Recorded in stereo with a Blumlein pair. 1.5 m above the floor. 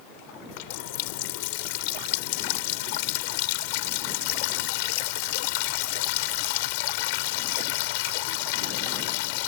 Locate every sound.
0.5 s a running tap: 45° left